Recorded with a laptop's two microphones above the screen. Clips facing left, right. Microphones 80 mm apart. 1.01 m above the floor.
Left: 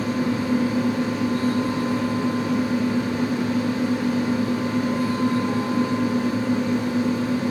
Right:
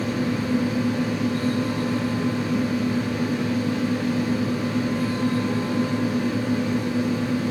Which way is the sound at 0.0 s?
30° left (ahead or behind).